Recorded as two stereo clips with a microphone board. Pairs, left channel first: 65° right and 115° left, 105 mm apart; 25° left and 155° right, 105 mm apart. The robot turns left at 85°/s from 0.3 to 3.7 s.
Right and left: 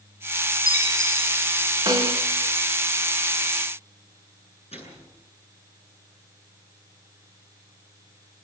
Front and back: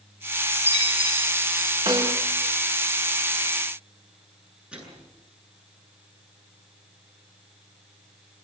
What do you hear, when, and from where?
0.5 s a chime: 150° right, 7.5 m; by 1.8 s 105° left, 7.5 m
1.9 s a snare drum: 160° left, 3.5 m; by 2.2 s 130° left, 3.5 m
4.7 s a microwave: 75° right, 8.5 m